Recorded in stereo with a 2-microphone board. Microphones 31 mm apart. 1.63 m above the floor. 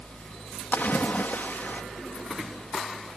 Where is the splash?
65° left (ahead or behind).